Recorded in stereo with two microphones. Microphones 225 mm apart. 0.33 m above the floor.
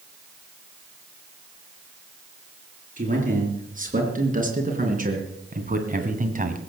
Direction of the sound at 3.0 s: 35° right (ahead or behind).